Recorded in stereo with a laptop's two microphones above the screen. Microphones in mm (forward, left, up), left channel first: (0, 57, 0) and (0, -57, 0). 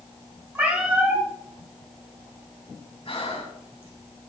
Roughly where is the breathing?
Left.